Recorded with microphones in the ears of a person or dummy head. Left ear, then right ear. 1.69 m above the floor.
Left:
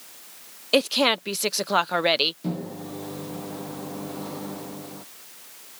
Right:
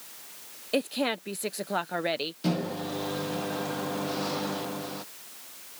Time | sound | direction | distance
0.7 | a woman speaking | 40° left (ahead or behind) | ?
2.4 | a microwave | 60° right (ahead or behind) | ?